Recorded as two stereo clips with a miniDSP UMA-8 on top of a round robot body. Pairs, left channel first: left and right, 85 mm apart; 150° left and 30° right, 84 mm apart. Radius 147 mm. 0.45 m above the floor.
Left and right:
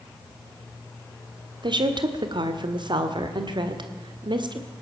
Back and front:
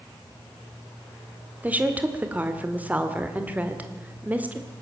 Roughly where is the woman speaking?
Right.